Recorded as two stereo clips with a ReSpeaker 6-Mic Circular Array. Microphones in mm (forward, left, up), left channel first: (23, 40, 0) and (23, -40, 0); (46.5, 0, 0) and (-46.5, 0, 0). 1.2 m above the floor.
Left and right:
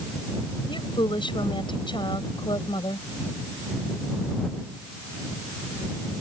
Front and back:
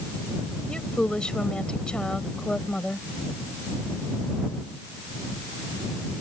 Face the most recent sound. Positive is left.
turn(degrees=80)